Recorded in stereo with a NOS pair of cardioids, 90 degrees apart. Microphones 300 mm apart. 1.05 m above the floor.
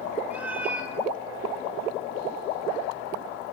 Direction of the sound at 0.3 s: 5° right.